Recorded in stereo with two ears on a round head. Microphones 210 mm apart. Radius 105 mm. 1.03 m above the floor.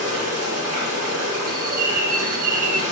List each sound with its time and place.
0.0 s running water: 65° right (ahead or behind), 1.3 m
1.5 s a bird: 40° right (ahead or behind), 0.6 m